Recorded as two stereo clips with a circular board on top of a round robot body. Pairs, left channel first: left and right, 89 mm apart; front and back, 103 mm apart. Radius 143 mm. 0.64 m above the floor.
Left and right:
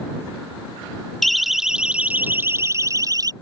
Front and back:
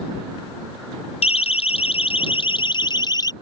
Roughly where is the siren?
Ahead.